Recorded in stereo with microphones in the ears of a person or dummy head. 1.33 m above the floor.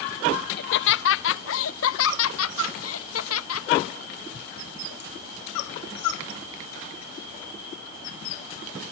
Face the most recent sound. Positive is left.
turn(degrees=80)